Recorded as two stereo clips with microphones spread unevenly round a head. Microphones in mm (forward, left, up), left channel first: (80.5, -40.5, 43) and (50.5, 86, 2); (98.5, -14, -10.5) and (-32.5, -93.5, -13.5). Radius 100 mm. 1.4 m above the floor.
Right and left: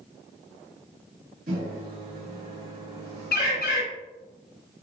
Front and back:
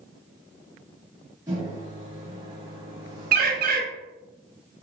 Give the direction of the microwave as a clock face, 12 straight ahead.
7 o'clock.